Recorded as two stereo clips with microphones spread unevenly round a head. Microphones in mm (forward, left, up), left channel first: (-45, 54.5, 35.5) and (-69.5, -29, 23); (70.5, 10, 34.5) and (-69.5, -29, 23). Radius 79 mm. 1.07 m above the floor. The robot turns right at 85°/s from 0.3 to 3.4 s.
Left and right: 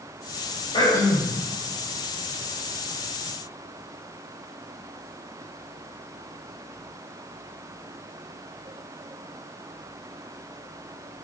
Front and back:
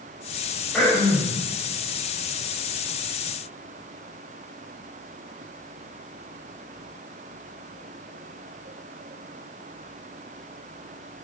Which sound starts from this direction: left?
Throat clearing, at 0.7 s.